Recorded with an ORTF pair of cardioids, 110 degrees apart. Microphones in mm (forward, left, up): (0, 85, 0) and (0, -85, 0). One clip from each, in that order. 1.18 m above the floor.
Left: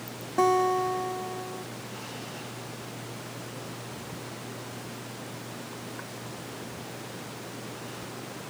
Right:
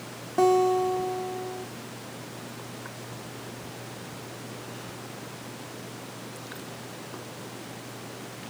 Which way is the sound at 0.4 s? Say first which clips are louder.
Right 2 dB; 5° right.